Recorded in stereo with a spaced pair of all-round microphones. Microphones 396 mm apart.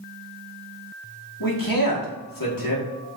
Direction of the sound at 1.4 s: 55° left (ahead or behind).